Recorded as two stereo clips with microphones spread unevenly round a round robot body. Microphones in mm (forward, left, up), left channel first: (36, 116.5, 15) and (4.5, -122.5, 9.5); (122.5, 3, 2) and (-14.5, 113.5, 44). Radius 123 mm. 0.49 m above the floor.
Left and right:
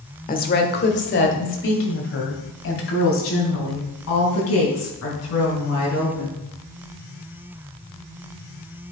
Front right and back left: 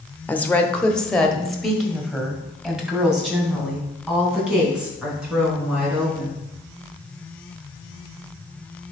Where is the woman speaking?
30° left, 1.2 m; by 6.4 s 55° left, 5 m.